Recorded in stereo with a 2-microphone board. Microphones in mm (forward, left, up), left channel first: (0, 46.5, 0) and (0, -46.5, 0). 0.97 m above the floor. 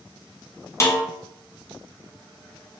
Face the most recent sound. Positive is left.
turn(degrees=30)  # may be behind; listen again after turning